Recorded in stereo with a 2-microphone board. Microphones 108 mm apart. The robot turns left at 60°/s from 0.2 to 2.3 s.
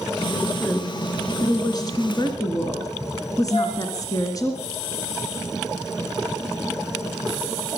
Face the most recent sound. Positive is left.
turn(degrees=55)  # may be behind; listen again after turning